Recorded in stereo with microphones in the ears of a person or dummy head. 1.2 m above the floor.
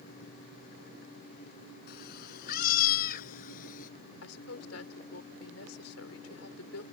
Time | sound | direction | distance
1.9 | a cat meowing | 50° left (ahead or behind) | ?
4.2 | a woman speaking | 85° left | ?